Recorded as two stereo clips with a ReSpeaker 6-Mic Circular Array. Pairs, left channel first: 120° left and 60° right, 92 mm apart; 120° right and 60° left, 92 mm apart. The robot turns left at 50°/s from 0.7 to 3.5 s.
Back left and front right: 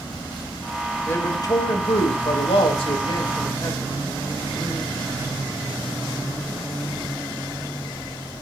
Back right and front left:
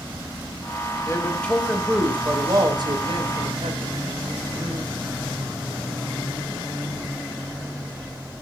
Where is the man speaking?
175° right, 3.5 m; by 4.9 s 65° left, 3.5 m.